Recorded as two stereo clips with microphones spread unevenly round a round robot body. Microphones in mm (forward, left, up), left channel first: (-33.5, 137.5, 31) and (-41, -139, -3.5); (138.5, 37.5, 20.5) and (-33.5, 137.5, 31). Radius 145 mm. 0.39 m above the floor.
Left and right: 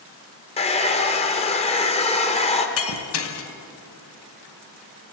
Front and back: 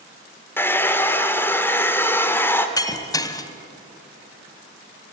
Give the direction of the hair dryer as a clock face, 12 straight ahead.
11 o'clock.